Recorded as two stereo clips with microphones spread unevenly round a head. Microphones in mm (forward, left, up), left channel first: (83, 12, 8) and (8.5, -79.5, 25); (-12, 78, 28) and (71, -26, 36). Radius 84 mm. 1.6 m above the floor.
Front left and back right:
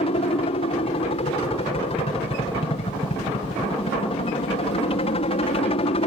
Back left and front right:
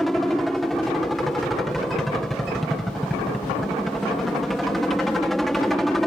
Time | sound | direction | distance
0.0 | a helicopter | 40° left | ?